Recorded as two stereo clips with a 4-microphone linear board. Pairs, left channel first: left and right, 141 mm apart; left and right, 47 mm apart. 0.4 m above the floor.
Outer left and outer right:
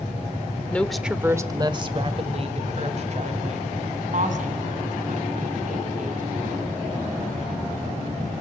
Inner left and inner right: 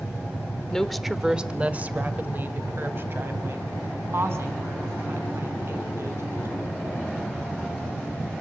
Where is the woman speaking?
10° left (ahead or behind), 0.9 m; by 6.8 s 70° right (ahead or behind), 5 m.